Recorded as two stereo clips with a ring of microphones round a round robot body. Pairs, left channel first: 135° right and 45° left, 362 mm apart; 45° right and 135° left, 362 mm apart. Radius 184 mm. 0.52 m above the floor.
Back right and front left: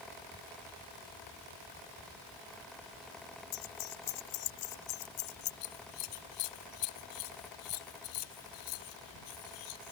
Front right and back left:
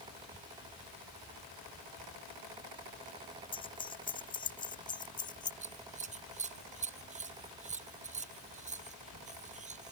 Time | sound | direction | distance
3.5 | keys jangling | 120° right | ?
5.6 | scissors | 155° right | ?